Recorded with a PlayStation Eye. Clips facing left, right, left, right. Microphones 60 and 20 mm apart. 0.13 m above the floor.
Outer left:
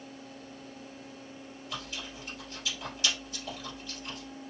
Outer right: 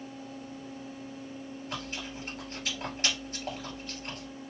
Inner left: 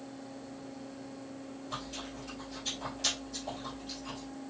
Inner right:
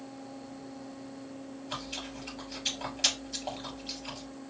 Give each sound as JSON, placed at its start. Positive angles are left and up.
{"t": 1.7, "sound": "chewing", "side_deg": -50, "distance_m": 1.7}